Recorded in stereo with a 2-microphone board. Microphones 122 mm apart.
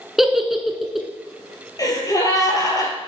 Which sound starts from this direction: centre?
A giggle, at 0.2 s.